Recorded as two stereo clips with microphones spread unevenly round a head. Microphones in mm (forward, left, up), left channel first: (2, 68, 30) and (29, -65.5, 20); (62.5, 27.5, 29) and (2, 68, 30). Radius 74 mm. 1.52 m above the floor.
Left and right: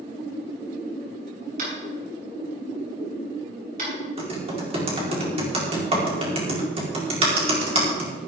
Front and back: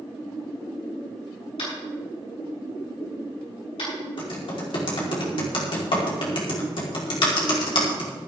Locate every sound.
1.6 s tapping: 45° right, 7 m
4.2 s typing on a keyboard: 30° right, 4 m